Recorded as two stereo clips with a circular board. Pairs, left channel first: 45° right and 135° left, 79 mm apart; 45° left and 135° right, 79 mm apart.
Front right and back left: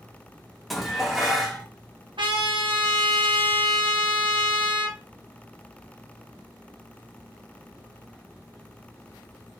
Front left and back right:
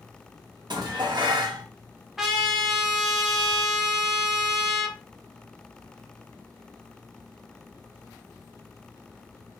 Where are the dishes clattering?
135° right, 0.6 m.